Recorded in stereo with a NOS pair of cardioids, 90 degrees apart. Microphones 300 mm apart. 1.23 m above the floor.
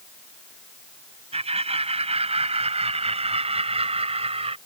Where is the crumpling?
I don't hear crumpling.